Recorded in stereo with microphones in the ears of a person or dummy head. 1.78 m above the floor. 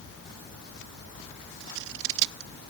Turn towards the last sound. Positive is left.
turn(degrees=-60)  # may be behind; listen again after turning